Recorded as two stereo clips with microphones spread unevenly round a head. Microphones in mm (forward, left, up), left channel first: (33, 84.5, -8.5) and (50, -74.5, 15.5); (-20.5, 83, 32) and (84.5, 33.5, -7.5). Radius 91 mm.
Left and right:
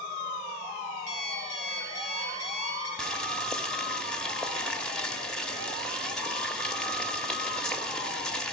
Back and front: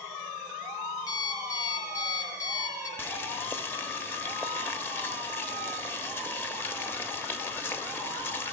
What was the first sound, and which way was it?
An alarm clock, 100° left.